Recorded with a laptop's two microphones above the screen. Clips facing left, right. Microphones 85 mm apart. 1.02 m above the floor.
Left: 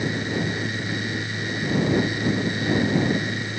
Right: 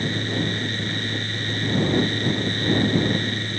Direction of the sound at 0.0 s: 10° left (ahead or behind).